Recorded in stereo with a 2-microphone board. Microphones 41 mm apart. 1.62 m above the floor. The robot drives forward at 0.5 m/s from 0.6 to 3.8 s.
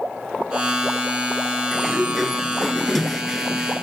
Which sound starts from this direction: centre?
A sliding door, at 1.7 s.